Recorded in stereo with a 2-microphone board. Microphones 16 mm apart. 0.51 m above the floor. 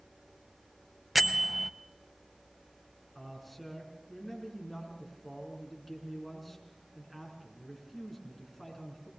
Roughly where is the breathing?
No breathing in this recording.